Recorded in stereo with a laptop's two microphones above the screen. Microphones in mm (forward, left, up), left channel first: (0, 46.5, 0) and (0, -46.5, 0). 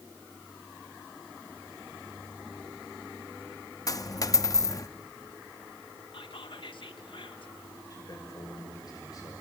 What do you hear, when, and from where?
3.9 s a dropped coin: 40° left (ahead or behind), 0.5 m
6.1 s whispering: 65° left (ahead or behind), 1.0 m
7.9 s a man speaking: 40° left (ahead or behind), 5 m